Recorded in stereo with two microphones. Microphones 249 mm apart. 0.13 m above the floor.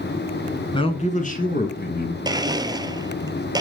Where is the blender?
15° right (ahead or behind), 0.6 m.